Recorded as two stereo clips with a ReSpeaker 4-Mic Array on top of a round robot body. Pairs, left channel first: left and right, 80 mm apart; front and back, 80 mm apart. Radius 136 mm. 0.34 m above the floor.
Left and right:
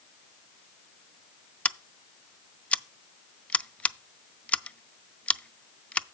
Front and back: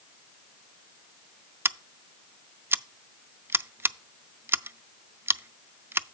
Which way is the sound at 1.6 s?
155° left.